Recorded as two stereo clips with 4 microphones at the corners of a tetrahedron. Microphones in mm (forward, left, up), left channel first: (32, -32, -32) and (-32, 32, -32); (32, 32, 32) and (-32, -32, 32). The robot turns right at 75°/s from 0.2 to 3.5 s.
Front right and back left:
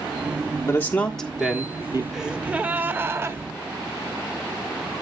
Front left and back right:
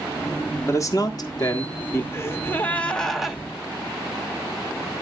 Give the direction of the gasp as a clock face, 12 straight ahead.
10 o'clock.